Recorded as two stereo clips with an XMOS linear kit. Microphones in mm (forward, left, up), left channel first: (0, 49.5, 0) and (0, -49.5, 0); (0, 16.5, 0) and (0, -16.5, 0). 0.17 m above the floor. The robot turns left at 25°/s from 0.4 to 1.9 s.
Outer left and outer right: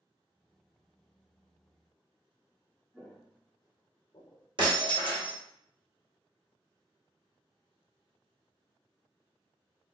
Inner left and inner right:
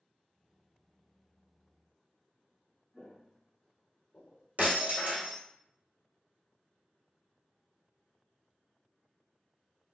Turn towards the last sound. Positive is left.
turn(degrees=-55)  # may be behind; listen again after turning